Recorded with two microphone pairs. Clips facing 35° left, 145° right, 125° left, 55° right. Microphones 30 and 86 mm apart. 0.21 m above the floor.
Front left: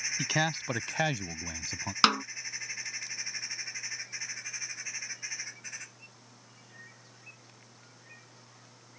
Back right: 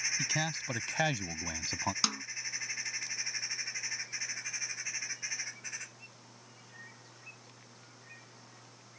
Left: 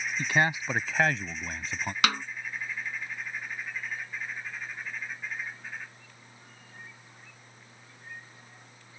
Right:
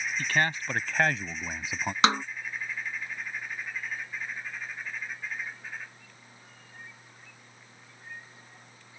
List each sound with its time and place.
0.2 s a man speaking: 60° left; by 1.9 s 115° right
2.0 s a snare drum: 5° left